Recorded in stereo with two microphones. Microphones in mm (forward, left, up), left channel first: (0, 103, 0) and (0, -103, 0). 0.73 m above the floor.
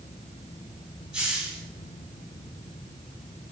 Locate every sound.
1.1 s a hiss: 5° right (ahead or behind), 1.6 m